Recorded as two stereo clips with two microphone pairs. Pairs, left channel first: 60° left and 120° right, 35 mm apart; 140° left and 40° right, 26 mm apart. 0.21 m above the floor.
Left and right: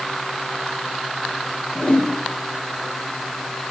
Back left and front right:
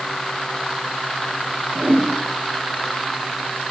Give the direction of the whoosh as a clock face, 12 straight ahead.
12 o'clock.